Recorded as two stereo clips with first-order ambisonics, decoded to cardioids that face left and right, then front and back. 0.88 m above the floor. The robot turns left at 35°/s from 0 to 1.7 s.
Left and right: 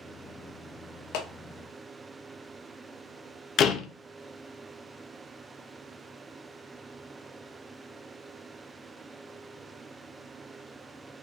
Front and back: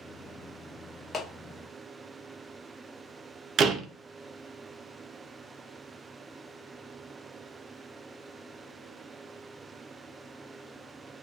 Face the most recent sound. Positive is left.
turn(degrees=130)